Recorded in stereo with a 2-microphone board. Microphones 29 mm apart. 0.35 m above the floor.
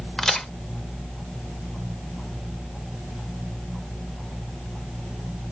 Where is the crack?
20° left (ahead or behind), 0.7 m.